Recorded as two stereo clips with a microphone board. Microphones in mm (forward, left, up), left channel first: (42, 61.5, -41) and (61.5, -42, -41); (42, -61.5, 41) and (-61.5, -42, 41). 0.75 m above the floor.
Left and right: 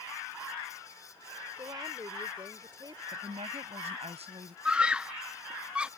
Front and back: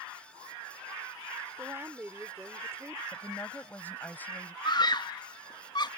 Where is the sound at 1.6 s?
125° right.